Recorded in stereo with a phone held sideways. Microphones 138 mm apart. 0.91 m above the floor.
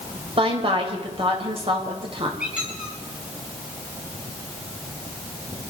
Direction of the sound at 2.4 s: 10° right (ahead or behind).